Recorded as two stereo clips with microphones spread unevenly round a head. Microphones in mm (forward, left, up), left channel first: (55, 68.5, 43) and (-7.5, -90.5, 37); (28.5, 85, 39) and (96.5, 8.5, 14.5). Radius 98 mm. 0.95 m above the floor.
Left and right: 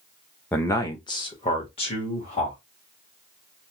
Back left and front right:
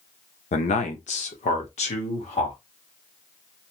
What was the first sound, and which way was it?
A man speaking, 150° left.